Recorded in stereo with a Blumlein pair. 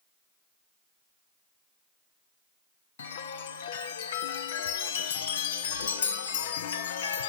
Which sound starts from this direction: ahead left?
A chime, at 3.0 s.